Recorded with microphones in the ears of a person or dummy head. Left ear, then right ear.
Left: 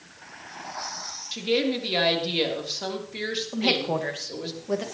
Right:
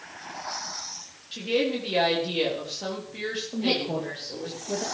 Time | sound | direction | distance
1.3 | a woman speaking | 30° left (ahead or behind) | 3.5 m
3.5 | a woman speaking | 60° left (ahead or behind) | 2.0 m